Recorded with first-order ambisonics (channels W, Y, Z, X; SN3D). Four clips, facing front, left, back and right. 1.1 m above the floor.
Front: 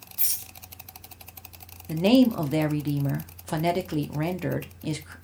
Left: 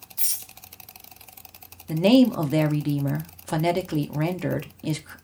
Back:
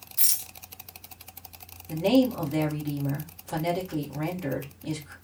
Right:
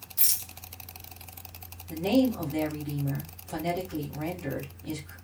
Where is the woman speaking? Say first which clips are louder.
Left 7 dB, front 3 dB; 60° left, 0.6 m.